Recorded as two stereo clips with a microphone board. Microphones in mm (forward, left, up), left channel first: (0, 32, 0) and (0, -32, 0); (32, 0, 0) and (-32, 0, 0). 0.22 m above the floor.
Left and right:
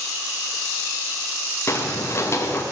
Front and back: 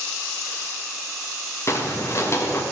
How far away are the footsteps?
About 2.5 m.